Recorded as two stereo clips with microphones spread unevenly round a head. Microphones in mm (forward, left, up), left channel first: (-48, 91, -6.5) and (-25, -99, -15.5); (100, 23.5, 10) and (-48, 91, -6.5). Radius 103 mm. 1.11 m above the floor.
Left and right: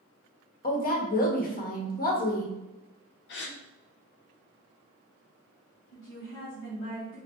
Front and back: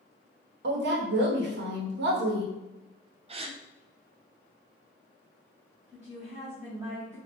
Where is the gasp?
110° left, 0.6 m.